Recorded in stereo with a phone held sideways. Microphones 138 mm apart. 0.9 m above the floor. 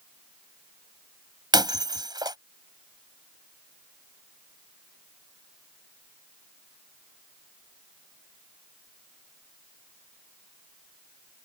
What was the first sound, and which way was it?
Breaking glass, 30° right (ahead or behind).